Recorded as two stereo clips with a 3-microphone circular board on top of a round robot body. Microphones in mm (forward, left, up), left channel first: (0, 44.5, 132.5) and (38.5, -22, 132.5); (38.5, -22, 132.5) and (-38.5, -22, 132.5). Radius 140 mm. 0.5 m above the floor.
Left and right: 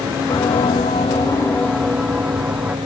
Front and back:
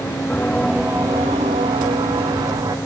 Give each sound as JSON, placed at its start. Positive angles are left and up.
{"t": 0.3, "sound": "footsteps", "azimuth_deg": 75}